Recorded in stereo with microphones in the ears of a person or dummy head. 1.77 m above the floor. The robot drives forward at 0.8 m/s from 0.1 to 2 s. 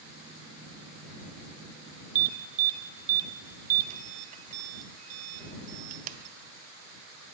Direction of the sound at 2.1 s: 45° right (ahead or behind).